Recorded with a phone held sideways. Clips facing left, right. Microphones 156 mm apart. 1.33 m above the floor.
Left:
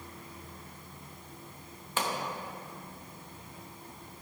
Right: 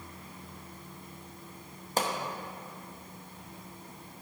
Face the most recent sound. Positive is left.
turn(degrees=-40)  # may be behind; listen again after turning